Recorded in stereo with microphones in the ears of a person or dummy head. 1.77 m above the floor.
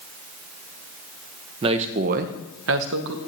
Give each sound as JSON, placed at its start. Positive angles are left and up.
{"t": 1.6, "sound": "a man speaking", "side_deg": -30, "distance_m": 1.0}